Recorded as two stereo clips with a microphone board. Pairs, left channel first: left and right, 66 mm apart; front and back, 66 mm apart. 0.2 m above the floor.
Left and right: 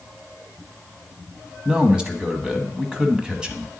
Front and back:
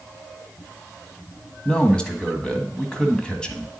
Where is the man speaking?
40° right, 1.1 m.